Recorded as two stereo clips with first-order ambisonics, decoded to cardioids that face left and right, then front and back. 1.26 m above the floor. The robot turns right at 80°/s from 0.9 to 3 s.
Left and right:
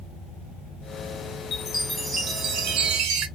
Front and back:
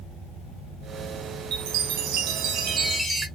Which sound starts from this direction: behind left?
A chime, at 1.5 s.